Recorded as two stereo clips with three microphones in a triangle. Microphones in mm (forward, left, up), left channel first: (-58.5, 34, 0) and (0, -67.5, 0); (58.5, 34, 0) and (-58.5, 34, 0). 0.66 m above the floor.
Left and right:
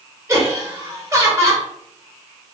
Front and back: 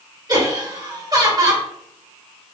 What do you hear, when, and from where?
0.3 s laughter: 125° right, 2.0 m